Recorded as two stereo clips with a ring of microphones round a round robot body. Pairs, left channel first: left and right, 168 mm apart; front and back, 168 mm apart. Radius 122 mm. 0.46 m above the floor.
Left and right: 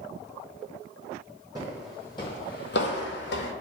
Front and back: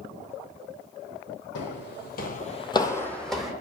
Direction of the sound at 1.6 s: 15° right.